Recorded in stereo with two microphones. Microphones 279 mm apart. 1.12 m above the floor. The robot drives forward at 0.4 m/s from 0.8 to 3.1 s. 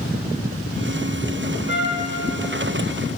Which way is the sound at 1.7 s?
45° left (ahead or behind).